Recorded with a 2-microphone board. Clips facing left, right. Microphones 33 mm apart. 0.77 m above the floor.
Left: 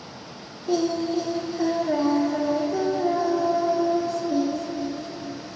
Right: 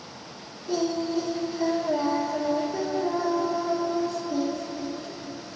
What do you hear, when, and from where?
0.7 s singing: 65° left (ahead or behind), 2 m